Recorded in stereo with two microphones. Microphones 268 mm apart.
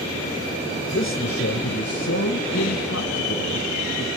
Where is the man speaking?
40° left (ahead or behind), 1.7 m; by 4.1 s 50° left (ahead or behind), 4 m.